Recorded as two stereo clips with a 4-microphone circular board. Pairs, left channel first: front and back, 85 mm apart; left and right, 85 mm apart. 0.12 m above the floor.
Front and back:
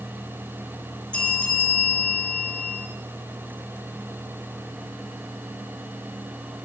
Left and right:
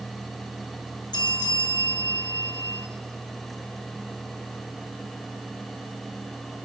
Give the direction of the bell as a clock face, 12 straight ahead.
10 o'clock.